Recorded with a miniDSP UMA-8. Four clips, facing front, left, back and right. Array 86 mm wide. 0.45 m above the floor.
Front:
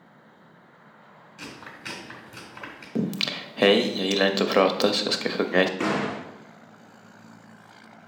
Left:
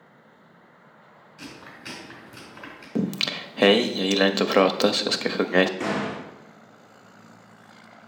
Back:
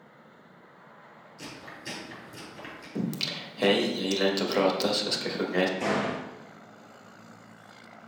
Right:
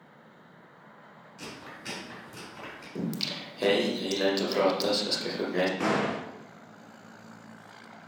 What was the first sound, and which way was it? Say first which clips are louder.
Chewing: left 1 dB, front 2 dB; 5° left.